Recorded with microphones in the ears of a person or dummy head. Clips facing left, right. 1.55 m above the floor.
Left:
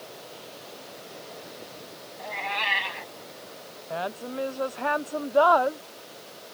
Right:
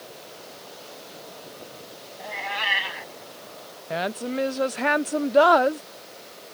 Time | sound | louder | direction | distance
2.2 | a cat meowing | even | 10° right (ahead or behind) | ?
3.9 | a woman speaking | right 5 dB | 25° right (ahead or behind) | ?